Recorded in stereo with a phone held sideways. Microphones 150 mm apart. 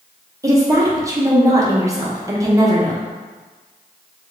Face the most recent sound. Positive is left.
turn(degrees=-20)  # may be behind; listen again after turning